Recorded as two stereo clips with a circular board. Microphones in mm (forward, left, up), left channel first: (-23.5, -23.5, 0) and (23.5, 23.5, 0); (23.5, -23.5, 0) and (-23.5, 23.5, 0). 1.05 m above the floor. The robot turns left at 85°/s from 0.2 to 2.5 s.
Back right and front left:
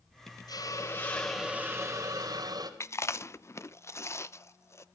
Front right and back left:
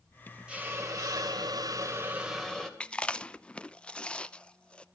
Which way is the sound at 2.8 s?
115° right.